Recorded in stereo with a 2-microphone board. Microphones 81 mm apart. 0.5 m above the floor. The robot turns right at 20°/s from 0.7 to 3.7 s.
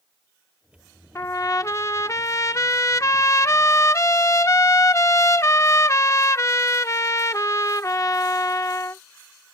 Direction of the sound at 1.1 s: 60° left.